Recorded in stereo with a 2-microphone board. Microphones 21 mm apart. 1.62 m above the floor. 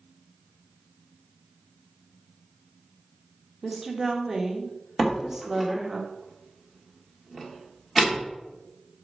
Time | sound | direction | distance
3.6 | a woman speaking | 15° right (ahead or behind) | 0.9 m
5.0 | a door slam | 15° left (ahead or behind) | 1.5 m